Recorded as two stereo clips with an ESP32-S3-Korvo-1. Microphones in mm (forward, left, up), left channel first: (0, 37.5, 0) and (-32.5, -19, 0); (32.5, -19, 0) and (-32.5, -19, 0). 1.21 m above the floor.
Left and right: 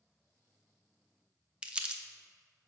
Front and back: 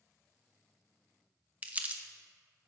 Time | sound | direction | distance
1.6 | crumpling | 170° right | 0.6 m